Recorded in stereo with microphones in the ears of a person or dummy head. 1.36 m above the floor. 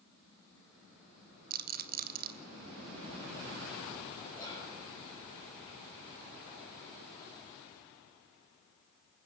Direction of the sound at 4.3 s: 15° left (ahead or behind).